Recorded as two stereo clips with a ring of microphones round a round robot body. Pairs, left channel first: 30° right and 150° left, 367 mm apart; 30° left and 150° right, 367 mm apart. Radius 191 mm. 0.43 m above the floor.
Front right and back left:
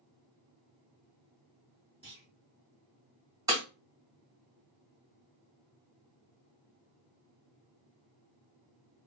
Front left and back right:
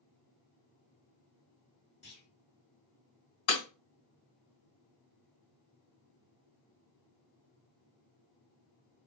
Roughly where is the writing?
I don't hear writing.